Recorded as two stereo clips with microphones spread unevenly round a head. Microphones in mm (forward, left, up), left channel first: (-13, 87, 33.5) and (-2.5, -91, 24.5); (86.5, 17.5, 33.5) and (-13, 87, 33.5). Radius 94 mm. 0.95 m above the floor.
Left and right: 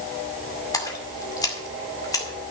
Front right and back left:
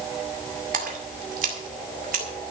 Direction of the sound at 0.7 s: 165° left.